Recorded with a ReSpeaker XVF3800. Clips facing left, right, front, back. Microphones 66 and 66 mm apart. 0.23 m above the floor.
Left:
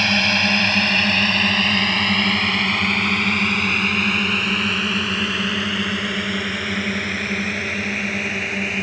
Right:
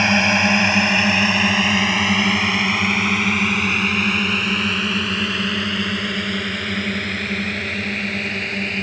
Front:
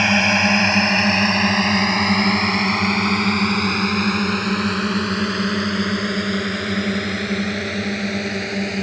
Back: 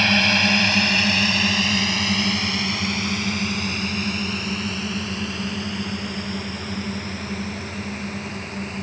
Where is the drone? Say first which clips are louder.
Right 3 dB, front 3 dB; 50° right; by 8.8 s 5° left.